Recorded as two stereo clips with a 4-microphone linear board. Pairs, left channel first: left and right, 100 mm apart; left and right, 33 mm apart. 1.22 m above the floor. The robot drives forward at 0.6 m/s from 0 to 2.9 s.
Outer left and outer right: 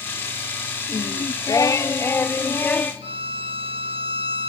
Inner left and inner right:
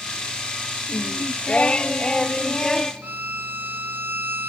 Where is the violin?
70° right (ahead or behind), 0.9 m.